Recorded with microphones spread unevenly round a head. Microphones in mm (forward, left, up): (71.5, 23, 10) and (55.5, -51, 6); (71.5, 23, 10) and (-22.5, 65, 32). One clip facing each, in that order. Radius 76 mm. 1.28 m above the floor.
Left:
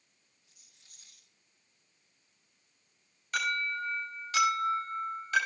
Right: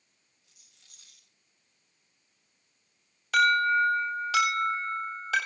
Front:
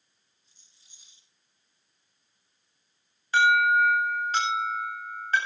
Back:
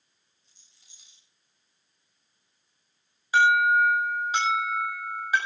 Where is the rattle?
155° right, 7 m.